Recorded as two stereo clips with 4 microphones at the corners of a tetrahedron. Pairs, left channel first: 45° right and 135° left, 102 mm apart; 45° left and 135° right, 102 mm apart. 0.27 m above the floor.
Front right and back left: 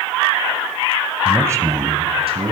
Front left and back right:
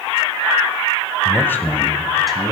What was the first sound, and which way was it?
A man speaking, 60° left.